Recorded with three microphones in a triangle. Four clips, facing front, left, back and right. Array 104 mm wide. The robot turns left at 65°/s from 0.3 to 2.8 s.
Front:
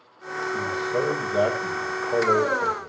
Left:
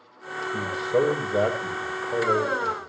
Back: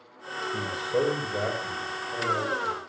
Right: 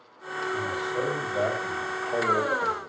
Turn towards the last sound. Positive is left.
turn(degrees=-20)